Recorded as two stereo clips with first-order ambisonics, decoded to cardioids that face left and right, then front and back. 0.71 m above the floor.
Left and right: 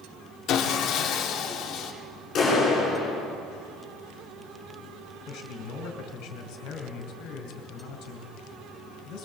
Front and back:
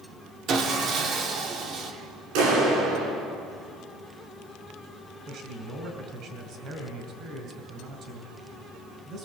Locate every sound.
0.5 s sawing: 135° left, 1.9 m
2.4 s a clap: 155° left, 8.5 m
5.3 s a man speaking: 125° left, 3.5 m